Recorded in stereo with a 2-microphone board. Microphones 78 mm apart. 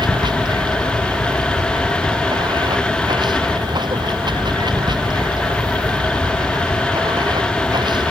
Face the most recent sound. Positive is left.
turn(degrees=-70)  # may be behind; listen again after turning